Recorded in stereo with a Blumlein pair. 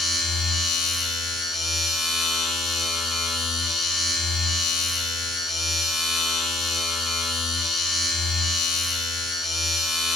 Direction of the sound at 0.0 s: 5° left.